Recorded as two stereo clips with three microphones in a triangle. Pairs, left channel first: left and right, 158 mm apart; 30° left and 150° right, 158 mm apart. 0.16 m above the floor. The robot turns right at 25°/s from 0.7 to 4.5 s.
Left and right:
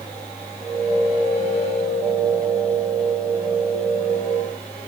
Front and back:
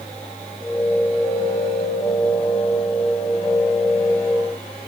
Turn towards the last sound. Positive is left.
No sound to turn to.